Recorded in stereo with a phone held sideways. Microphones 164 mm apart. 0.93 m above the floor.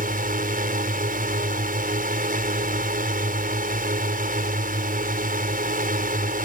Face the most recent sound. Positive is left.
turn(degrees=-65)  # may be behind; listen again after turning